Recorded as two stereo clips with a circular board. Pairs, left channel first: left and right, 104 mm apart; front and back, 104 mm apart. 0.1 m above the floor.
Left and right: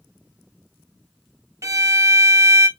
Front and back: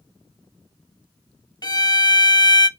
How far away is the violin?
About 0.5 m.